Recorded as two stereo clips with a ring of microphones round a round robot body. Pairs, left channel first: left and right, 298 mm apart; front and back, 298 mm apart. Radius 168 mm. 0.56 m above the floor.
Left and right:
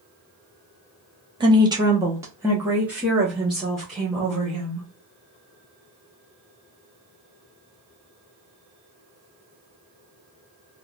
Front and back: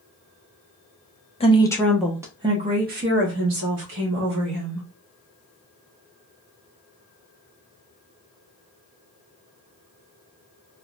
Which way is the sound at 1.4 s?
40° right.